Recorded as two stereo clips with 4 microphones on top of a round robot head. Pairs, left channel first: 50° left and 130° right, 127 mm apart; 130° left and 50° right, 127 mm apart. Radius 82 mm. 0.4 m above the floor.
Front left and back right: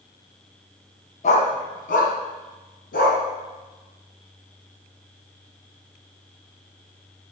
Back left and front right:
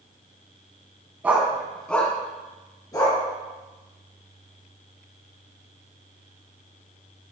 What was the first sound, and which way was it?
A dog barking, 25° left.